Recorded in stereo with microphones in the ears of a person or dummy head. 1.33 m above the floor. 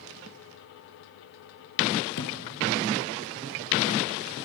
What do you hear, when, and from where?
2.2 s a thud: 60° left (ahead or behind), 3 m